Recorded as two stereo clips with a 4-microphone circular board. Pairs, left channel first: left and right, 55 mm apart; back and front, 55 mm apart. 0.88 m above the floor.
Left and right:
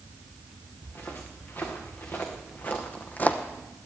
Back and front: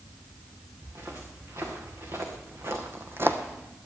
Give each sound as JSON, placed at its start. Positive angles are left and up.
{"t": 0.8, "sound": "footsteps", "azimuth_deg": 40, "distance_m": 5.0}